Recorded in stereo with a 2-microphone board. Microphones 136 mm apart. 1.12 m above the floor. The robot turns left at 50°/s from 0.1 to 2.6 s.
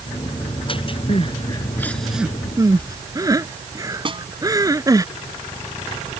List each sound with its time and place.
1.1 s crying: 50° left (ahead or behind); by 5.0 s 25° right (ahead or behind)
4.0 s a snare drum: 40° right (ahead or behind)